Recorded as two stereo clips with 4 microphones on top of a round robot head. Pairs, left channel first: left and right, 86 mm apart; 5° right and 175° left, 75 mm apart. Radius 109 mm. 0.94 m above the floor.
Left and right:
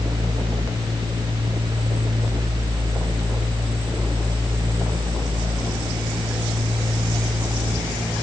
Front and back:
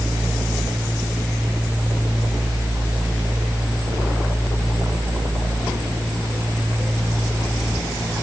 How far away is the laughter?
No laughter in this recording.